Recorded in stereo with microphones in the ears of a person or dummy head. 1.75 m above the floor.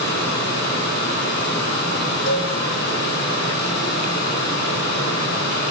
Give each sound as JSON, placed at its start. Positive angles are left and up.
{"t": 0.0, "sound": "a fan", "side_deg": 60, "distance_m": 2.0}
{"t": 2.3, "sound": "a cowbell", "side_deg": 55, "distance_m": 2.5}